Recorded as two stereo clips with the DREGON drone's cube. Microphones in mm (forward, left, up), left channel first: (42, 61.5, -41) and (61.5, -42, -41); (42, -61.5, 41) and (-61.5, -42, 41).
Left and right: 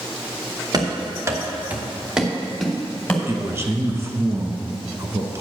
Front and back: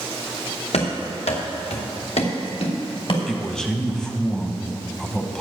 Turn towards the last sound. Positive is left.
turn(degrees=-90)